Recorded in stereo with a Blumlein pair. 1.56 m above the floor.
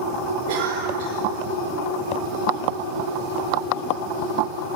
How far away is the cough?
About 7 m.